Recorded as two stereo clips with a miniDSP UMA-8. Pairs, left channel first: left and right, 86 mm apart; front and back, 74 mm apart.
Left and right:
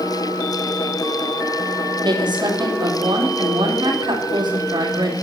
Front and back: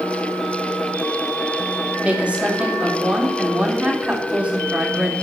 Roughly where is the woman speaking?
Right.